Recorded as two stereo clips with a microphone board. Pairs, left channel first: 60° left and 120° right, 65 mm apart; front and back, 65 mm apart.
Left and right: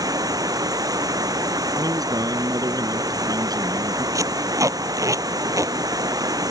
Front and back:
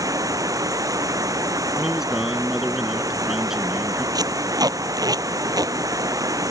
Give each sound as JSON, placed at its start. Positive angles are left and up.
{"t": 0.0, "sound": "running water", "azimuth_deg": -145}
{"t": 1.8, "sound": "a man speaking", "azimuth_deg": -95}
{"t": 4.2, "sound": "tape being pulled", "azimuth_deg": -155}